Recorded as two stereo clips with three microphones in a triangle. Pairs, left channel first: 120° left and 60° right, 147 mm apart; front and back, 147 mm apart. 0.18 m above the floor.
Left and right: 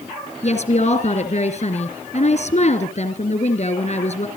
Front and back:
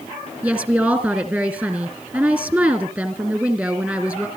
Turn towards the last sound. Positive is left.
turn(degrees=110)